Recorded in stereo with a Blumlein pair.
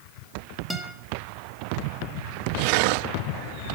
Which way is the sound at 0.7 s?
Straight ahead.